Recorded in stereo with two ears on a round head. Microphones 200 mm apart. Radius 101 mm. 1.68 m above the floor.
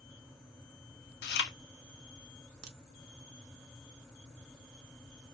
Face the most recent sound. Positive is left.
turn(degrees=-75)  # may be behind; listen again after turning